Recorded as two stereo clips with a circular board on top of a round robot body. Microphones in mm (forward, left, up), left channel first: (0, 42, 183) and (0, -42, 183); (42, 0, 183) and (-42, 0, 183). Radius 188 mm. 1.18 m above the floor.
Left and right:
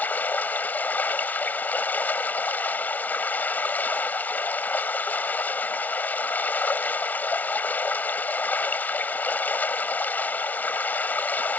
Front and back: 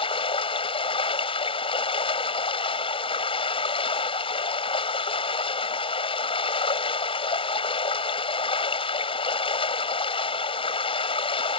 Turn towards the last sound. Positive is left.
turn(degrees=20)